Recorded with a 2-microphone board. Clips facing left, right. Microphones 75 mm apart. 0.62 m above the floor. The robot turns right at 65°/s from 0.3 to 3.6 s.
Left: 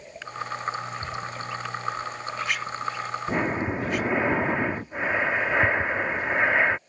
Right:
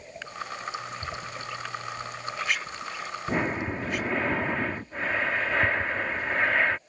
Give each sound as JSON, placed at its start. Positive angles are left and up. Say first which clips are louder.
{"t": 3.3, "sound": "breathing", "louder": "left 1 dB", "side_deg": 5}